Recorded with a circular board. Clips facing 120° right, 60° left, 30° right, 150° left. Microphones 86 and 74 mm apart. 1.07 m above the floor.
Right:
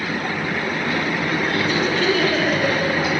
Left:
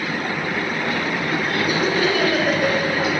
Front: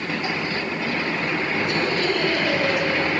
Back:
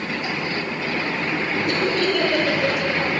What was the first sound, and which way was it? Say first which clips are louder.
Laughter: left 1 dB, back 4 dB; 140° left.